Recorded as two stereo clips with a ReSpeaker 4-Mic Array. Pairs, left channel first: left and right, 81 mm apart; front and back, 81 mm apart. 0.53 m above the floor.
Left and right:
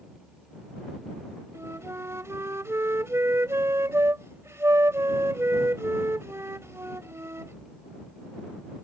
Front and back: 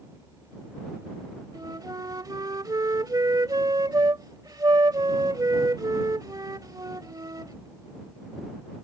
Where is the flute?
145° right.